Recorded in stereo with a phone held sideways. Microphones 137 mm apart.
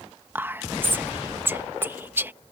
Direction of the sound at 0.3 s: 15° right (ahead or behind).